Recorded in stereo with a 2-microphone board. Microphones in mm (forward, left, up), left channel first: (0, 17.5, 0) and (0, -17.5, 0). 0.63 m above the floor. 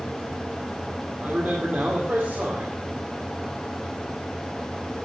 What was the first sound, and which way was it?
A man speaking, 55° right (ahead or behind).